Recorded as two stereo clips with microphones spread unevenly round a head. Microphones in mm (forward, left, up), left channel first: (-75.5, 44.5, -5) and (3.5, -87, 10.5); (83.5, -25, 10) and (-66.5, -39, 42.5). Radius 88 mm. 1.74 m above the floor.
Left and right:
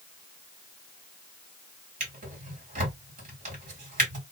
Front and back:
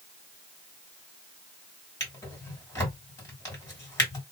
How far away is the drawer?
About 2.5 m.